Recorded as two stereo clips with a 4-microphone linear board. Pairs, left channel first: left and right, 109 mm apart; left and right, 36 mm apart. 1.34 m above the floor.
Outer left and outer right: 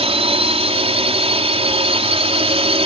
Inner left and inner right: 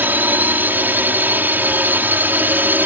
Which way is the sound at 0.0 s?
75° right (ahead or behind).